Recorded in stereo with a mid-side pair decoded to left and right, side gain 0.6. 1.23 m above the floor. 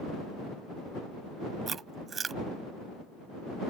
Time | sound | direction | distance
1.7 | chewing | 30° right | ?